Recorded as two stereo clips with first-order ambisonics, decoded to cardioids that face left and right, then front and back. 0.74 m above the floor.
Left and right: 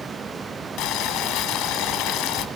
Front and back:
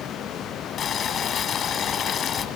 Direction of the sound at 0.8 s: 60° left.